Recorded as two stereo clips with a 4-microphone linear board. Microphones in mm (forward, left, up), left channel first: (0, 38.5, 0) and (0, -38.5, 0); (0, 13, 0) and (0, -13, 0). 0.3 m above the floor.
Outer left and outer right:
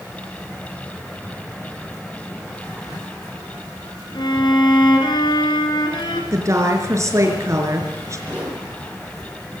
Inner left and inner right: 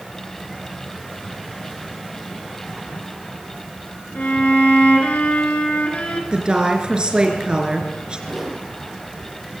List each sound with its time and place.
4.2 s a violin: 70° left (ahead or behind), 3.5 m
6.3 s a woman speaking: 40° right (ahead or behind), 4 m
8.3 s a whoosh: 15° right (ahead or behind), 6 m